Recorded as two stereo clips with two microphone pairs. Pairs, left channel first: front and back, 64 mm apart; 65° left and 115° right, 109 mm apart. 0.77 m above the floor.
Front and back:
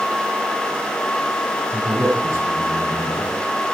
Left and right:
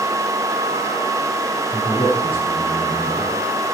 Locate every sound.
1.7 s a man speaking: 135° left, 9.5 m